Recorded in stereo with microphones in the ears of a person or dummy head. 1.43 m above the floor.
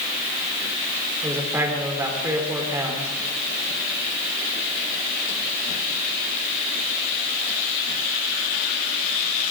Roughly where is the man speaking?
Centre.